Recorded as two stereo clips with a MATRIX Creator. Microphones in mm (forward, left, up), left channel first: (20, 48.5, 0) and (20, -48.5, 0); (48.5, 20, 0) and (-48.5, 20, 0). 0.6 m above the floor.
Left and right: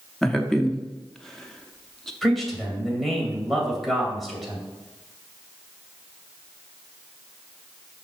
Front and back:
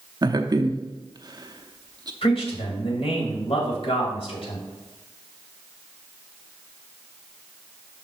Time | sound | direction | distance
0.2 | a man speaking | 170° left | 0.7 m
2.2 | a man speaking | straight ahead | 2.5 m